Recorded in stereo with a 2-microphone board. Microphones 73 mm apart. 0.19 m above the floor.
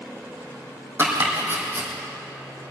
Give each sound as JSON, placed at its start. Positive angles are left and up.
{"t": 1.0, "sound": "chopping", "side_deg": -25, "distance_m": 3.0}